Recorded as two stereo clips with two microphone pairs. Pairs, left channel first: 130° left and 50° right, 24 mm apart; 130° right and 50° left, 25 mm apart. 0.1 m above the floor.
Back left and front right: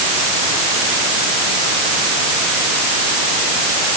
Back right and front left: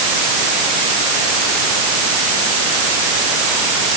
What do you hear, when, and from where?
Only background noise.